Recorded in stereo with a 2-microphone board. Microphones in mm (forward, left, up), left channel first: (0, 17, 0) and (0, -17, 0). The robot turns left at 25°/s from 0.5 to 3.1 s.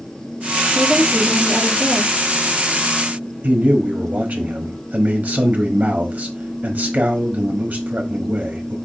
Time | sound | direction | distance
0.8 | a woman speaking | 120° right | 1.7 m
3.4 | a man speaking | 55° right (ahead or behind) | 0.9 m